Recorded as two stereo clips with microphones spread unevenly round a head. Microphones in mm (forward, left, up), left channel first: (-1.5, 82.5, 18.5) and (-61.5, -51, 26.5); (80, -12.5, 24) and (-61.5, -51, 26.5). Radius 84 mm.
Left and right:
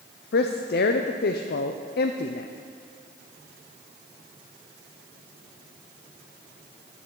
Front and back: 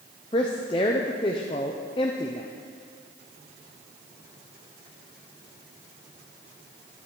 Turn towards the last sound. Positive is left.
turn(degrees=80)